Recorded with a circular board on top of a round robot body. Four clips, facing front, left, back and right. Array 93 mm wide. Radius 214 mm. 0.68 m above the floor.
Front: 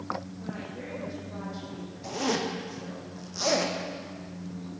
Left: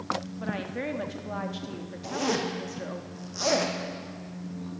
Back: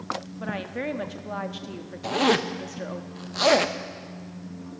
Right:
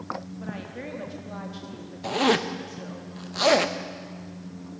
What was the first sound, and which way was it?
A woman speaking, 160° left.